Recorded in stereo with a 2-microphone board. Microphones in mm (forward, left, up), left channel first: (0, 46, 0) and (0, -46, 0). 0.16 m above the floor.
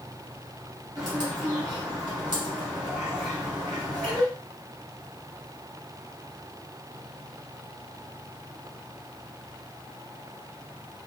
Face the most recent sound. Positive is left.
turn(degrees=-40)  # may be behind; listen again after turning